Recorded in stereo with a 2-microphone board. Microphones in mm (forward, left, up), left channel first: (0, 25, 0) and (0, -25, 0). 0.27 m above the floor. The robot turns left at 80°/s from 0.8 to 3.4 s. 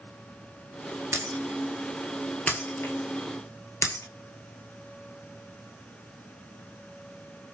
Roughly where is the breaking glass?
Right.